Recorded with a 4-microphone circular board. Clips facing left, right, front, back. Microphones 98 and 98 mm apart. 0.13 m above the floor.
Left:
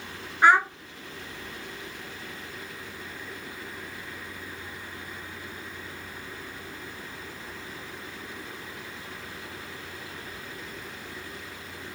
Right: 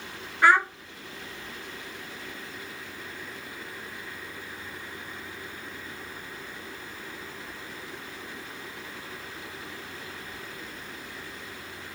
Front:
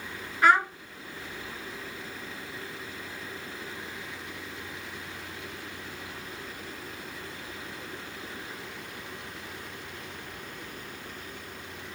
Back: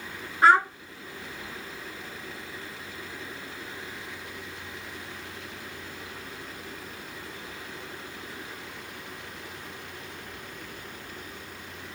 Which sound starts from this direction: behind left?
A child speaking, at 0.4 s.